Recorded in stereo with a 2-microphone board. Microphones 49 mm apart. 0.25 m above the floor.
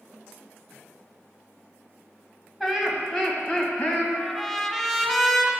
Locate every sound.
2.6 s laughter: centre (ahead or behind), 1.6 m; by 4.0 s 25° left (ahead or behind), 1.8 m
4.1 s a trumpet: 5° left (ahead or behind), 1.5 m